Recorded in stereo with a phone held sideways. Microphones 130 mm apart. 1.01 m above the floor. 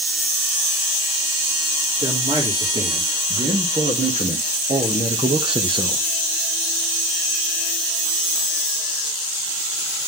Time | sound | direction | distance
2.0 | a man speaking | 70° right (ahead or behind) | 3 m